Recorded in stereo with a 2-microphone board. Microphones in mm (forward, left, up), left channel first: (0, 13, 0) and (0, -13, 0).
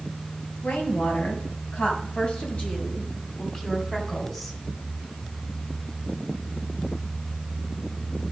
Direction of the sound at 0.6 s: 65° left (ahead or behind).